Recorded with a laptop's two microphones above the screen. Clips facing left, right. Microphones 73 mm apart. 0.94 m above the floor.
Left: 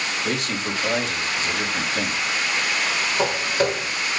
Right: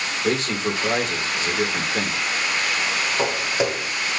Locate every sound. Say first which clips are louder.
0.2 s a man speaking: right 7 dB; 35° right (ahead or behind), 3 m
3.2 s footsteps: left 2 dB; 10° right (ahead or behind), 2.5 m